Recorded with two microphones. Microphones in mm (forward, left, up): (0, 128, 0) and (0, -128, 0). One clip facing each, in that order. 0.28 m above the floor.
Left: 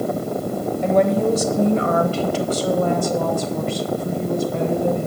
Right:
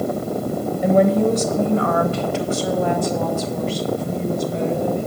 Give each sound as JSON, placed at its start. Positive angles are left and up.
{"t": 0.8, "sound": "a woman speaking", "side_deg": -10, "distance_m": 0.9}